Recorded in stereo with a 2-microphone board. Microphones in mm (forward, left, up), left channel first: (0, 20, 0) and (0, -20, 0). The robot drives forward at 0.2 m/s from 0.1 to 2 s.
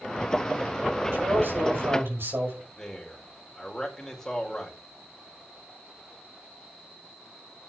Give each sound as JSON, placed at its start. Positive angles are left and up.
{"t": 1.1, "sound": "a man speaking", "side_deg": -65, "distance_m": 6.5}
{"t": 2.8, "sound": "a man speaking", "side_deg": 15, "distance_m": 4.5}